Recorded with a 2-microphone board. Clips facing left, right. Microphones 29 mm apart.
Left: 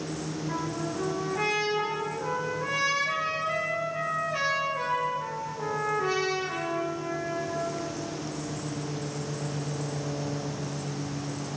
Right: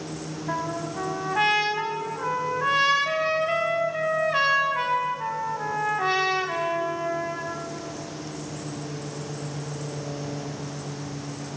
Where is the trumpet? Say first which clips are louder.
Right 5 dB; 55° right (ahead or behind), 2.5 m.